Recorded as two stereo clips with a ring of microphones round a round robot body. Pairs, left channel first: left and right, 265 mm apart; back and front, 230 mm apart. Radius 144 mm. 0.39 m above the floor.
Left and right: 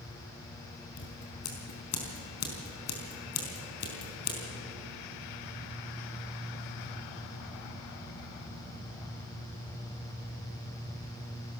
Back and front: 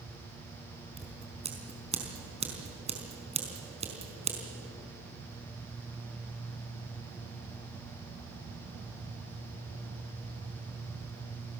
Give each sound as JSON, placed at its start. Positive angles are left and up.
{"t": 1.0, "sound": "scissors", "azimuth_deg": 60, "distance_m": 4.5}